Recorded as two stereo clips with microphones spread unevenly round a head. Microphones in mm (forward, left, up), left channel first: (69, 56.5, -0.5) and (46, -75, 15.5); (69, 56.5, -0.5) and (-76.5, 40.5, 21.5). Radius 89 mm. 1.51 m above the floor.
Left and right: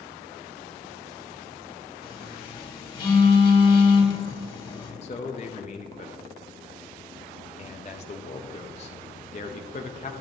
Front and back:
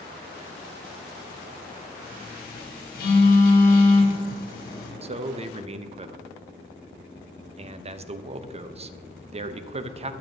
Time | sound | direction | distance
2.0 | a phone buzzing | 30° left | 2.5 m
5.0 | a man speaking | 135° left | 0.5 m